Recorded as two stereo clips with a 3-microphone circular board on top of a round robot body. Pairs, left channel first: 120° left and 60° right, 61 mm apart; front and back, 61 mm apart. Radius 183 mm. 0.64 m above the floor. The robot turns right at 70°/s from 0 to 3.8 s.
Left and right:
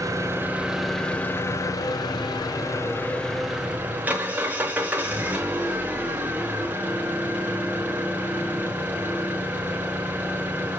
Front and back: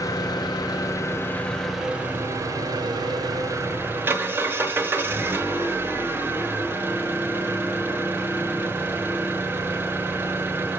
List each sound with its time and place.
0.0 s an engine running: 30° right, 1.0 m; by 10.8 s 125° right, 1.0 m